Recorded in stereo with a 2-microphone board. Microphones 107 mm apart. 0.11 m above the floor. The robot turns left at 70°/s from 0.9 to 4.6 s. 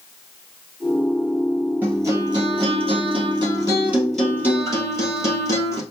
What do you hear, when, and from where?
1.8 s a guitar: 15° right, 2 m; by 5.8 s 150° left, 2 m